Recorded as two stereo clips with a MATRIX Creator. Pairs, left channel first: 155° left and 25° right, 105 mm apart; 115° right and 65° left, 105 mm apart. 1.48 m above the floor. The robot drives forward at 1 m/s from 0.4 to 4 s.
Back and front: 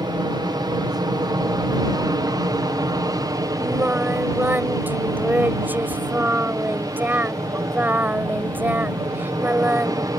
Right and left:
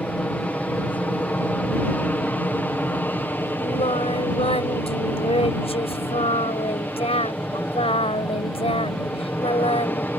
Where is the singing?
90° right; by 10.1 s 95° right.